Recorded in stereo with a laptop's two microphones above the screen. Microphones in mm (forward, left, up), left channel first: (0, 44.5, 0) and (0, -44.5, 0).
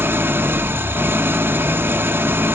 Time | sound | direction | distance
0.0 | an engine running | 25° right (ahead or behind) | 0.7 m